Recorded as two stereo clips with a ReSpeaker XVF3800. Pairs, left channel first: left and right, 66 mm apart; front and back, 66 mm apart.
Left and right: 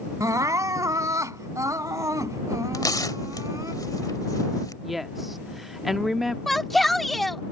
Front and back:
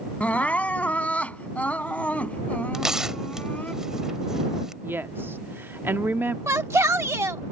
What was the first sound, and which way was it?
Crying, 65° right.